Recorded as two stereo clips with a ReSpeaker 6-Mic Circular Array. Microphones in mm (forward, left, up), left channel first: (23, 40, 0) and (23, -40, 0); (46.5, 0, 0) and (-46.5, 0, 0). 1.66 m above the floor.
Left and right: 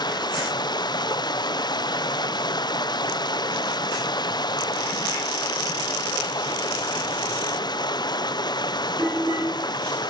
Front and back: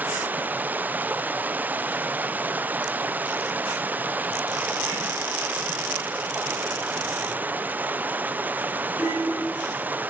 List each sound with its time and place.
0.0 s running water: 110° left, 0.8 m